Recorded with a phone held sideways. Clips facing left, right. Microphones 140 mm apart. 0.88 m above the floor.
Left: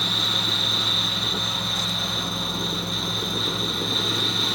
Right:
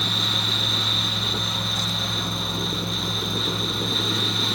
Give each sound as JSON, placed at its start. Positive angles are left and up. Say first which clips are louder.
{"t": 0.0, "sound": "a fan", "louder": "even", "side_deg": 0, "distance_m": 0.9}